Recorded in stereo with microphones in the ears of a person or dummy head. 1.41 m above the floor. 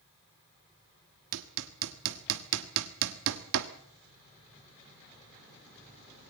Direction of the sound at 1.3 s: 70° right (ahead or behind).